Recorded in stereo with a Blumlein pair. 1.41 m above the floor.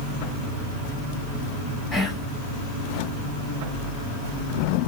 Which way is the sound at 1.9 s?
20° left.